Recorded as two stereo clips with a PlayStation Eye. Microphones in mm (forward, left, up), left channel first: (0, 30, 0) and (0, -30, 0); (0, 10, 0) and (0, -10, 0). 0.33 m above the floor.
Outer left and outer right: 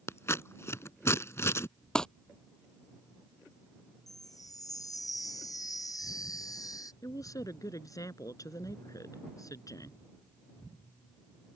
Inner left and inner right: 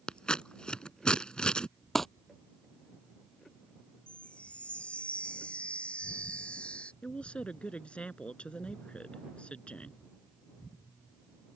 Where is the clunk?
No clunk in this recording.